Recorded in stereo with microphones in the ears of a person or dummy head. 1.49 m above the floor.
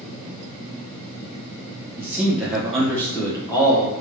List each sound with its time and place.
2.0 s a man speaking: 15° right (ahead or behind), 1.7 m; by 3.9 s 25° left (ahead or behind), 1.6 m